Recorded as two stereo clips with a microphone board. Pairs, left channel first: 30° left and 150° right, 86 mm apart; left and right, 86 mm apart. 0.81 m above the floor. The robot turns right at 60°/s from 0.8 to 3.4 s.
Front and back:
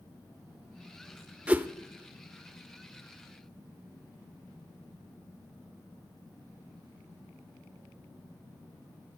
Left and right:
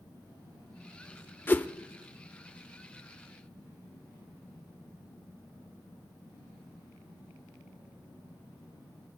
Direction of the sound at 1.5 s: 145° left.